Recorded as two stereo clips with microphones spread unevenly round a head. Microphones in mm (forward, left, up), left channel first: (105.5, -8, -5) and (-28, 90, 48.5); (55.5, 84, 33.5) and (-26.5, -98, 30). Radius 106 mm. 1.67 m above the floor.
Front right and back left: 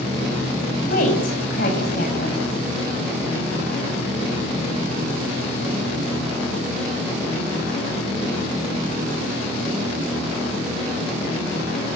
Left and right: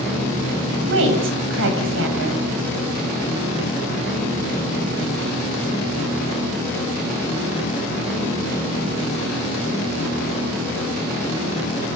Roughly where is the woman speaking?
Right.